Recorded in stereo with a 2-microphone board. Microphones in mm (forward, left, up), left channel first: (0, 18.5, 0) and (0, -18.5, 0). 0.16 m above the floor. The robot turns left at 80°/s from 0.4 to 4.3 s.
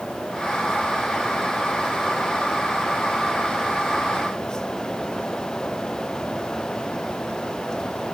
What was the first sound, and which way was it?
Only background noise.